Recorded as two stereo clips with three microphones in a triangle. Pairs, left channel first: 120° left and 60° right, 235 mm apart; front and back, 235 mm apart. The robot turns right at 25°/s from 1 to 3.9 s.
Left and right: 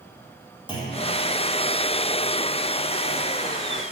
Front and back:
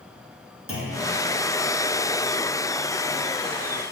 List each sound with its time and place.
0.7 s a clunk: 170° right, 3.5 m